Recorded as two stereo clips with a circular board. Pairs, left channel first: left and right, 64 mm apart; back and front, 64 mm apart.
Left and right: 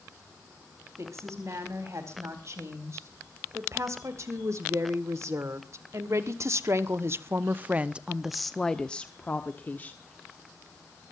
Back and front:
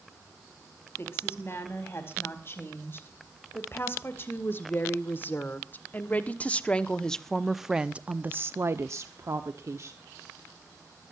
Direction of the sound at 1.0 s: 130° right.